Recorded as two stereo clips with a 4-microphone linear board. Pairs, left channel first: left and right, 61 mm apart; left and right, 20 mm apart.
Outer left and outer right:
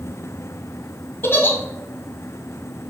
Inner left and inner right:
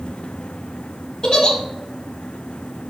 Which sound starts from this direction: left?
A giggle, at 1.2 s.